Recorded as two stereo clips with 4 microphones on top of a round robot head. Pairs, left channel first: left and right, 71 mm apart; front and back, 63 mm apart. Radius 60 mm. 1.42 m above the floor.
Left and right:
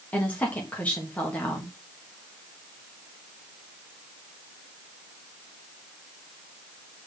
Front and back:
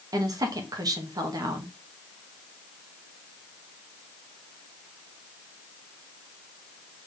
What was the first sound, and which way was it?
A woman speaking, 165° left.